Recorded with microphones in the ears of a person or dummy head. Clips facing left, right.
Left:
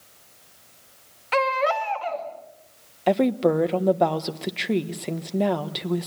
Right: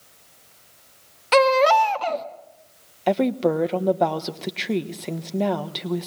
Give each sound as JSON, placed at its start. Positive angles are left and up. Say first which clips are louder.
{"t": 1.3, "sound": "a baby crying", "louder": "right 7 dB", "side_deg": -55, "distance_m": 1.6}
{"t": 3.1, "sound": "a woman speaking", "louder": "left 1 dB", "side_deg": 5, "distance_m": 1.2}